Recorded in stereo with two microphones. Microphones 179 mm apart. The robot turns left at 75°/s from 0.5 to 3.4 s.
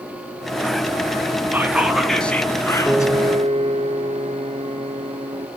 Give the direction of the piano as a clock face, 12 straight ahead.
12 o'clock.